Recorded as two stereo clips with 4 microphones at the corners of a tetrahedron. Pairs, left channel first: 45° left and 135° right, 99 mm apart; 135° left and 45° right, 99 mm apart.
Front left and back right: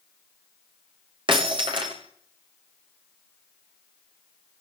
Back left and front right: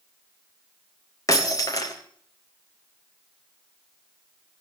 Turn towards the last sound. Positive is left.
turn(degrees=-170)